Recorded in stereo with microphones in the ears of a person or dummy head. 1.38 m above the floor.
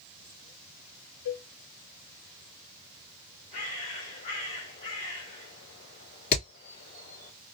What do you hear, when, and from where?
1.2 s a cowbell: 60° left (ahead or behind), 1.4 m
3.5 s a bird: 35° left (ahead or behind), 1.6 m
6.3 s hammering: 50° left (ahead or behind), 2.5 m